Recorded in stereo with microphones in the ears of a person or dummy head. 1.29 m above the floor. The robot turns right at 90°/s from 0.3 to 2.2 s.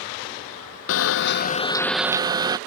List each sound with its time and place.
0.9 s a camera shutter: 80° left; by 2.6 s 160° right